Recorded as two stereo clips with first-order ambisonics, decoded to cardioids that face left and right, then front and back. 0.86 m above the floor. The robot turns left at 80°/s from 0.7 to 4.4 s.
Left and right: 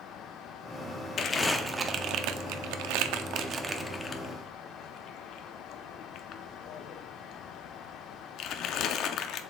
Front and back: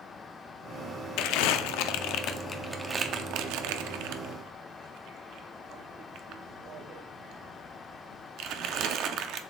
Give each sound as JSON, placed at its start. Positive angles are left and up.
{"t": 1.2, "sound": "crumpling", "azimuth_deg": 35, "distance_m": 0.6}